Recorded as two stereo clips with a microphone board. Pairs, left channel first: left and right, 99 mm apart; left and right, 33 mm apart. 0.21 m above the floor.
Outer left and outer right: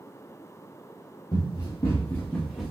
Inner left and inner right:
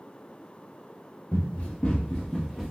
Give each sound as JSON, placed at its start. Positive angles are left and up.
{"t": 1.3, "sound": "running footsteps", "side_deg": 50, "distance_m": 1.5}